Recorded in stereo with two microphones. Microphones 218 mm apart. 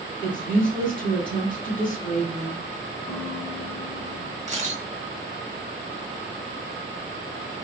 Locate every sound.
0.2 s a woman speaking: 40° right (ahead or behind), 2.5 m
3.1 s a guitar: centre (ahead or behind), 1.5 m
4.5 s a camera shutter: 35° right (ahead or behind), 1.2 m